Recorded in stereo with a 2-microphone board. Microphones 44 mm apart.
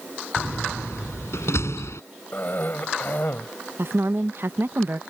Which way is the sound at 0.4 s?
80° left.